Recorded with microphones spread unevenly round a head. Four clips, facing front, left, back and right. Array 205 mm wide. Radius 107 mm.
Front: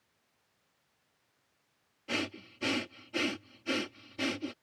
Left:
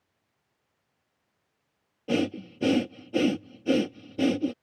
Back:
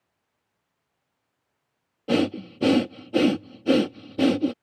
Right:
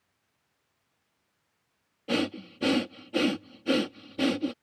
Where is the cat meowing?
I don't hear a cat meowing.